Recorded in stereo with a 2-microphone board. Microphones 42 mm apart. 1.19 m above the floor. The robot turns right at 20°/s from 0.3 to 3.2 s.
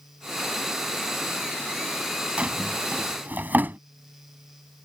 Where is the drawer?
30° right (ahead or behind); by 3.8 s 45° right (ahead or behind).